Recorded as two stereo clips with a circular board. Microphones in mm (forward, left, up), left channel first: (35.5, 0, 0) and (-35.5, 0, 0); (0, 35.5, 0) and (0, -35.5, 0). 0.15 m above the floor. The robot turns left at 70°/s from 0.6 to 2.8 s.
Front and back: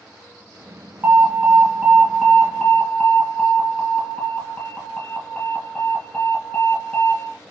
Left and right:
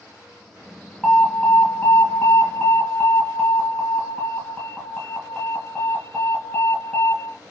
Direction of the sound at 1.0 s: 165° left.